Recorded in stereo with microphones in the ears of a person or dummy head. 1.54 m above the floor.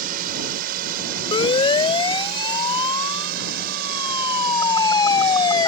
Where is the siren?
25° left (ahead or behind); by 5.7 s 20° left (ahead or behind).